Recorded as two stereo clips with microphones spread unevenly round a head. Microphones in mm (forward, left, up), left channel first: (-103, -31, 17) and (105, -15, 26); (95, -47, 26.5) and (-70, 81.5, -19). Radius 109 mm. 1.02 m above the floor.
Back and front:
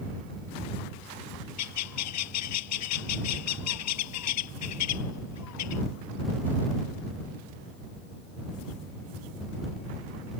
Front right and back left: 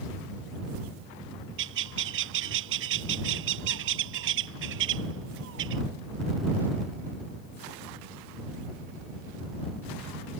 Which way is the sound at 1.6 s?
Straight behind.